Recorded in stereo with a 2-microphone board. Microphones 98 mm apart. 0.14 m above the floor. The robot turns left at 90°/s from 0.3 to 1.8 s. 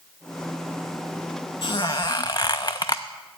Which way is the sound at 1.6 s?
60° left (ahead or behind).